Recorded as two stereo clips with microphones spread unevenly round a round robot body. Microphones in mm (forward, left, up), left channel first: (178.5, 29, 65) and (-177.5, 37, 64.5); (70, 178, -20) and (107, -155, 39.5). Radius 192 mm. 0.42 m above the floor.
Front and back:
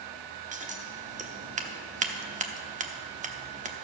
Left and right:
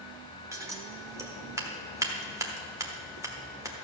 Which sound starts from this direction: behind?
Scissors, at 0.5 s.